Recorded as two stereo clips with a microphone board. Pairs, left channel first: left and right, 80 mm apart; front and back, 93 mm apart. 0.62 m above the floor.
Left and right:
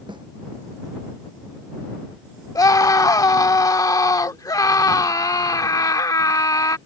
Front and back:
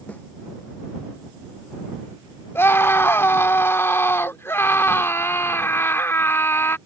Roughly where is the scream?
Ahead left.